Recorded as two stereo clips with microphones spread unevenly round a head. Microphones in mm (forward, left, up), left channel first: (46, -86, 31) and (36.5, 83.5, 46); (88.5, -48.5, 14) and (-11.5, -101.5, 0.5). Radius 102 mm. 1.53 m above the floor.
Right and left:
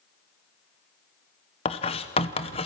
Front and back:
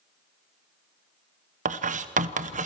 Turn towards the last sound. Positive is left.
turn(degrees=-150)